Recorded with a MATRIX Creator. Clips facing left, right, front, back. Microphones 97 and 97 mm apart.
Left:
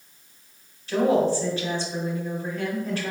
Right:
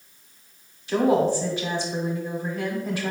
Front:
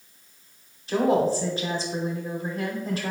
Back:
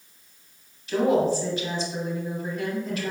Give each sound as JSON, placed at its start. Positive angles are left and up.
{"t": 0.9, "sound": "a woman speaking", "azimuth_deg": -25, "distance_m": 1.1}